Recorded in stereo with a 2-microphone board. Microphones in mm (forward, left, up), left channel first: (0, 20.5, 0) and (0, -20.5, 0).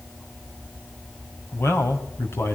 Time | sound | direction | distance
1.5 | a man speaking | 65° left (ahead or behind) | 3.5 m